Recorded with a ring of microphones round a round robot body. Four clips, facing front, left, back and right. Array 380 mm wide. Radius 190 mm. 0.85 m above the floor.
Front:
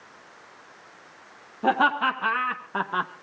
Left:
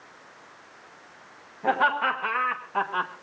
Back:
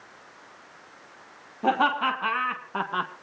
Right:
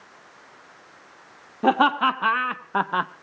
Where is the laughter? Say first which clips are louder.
Right 4 dB, front 1 dB; 90° right, 3 m; by 3.1 s 85° right, 0.9 m.